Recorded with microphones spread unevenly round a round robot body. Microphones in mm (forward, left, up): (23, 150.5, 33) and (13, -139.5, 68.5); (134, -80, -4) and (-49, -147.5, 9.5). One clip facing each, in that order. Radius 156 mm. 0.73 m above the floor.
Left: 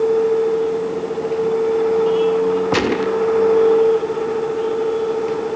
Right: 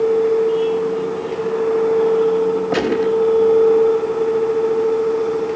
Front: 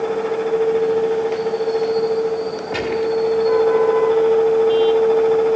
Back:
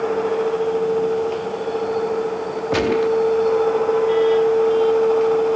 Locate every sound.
2.7 s a gunshot: 155° left, 0.8 m